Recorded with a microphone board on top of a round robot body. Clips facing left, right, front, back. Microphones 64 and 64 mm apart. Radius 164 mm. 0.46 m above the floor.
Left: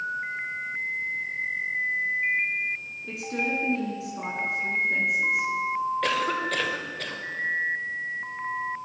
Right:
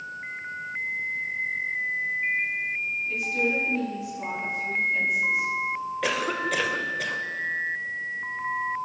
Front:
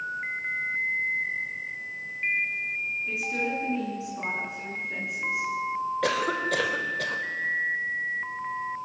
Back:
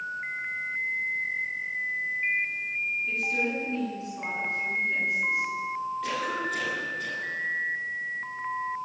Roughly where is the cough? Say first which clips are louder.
Left 1 dB, front 5 dB; ahead.